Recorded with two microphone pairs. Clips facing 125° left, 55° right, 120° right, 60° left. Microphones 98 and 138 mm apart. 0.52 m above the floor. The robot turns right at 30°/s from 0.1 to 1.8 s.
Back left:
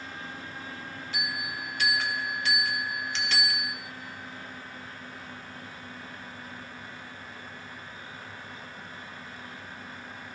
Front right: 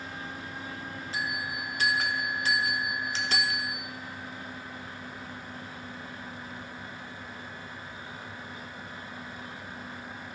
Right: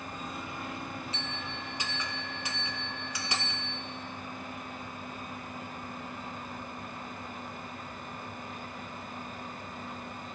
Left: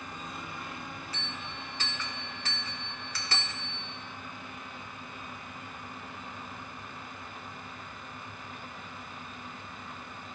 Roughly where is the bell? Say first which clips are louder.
Front right 1 dB, right 2 dB; right.